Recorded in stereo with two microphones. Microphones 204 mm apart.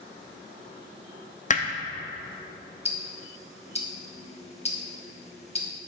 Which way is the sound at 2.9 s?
30° left (ahead or behind).